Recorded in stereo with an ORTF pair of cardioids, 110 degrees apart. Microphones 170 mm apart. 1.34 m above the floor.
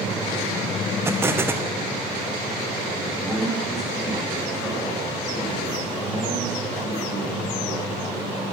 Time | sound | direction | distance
1.1 | an explosion | 15° right | 0.9 m
3.1 | a man speaking | straight ahead | 6.5 m